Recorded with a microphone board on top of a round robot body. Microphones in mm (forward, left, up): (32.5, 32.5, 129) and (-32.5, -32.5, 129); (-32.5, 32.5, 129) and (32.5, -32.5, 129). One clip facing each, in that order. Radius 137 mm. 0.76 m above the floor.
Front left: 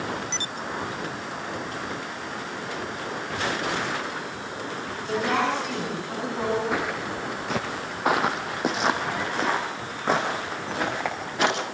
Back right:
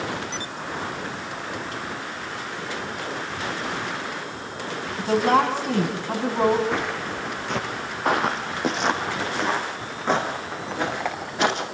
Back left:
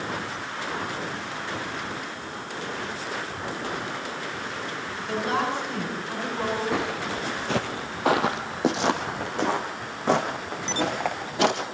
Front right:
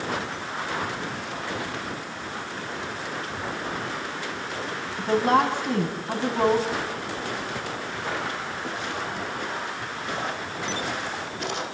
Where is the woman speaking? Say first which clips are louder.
Back right 6 dB, front right 6 dB; 85° right, 6.5 m.